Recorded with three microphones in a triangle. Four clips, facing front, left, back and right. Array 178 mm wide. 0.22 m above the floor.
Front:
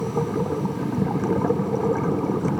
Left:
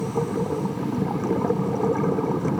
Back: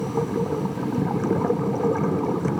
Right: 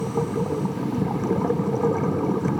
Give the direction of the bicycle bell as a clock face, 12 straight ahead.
No bicycle bell in this recording.